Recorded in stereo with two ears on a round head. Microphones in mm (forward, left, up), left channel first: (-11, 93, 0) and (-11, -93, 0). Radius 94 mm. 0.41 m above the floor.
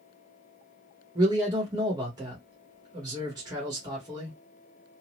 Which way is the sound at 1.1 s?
20° right (ahead or behind).